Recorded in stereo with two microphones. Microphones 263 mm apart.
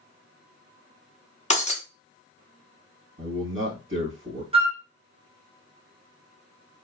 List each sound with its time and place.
1.5 s breaking glass: 25° left (ahead or behind), 0.7 m
3.2 s a man speaking: 50° right (ahead or behind), 2 m
4.5 s a flute: 20° right (ahead or behind), 0.7 m